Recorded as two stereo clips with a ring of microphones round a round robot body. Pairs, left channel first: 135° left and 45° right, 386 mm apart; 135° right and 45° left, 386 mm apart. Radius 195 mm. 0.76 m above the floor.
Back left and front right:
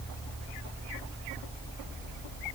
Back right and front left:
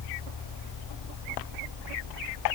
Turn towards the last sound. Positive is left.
No sound to turn to.